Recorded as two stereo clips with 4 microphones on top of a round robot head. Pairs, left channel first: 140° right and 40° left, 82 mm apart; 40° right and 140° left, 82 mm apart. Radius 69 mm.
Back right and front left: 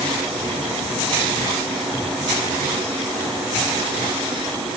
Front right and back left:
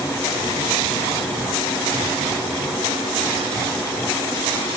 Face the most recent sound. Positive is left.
No sound to turn to.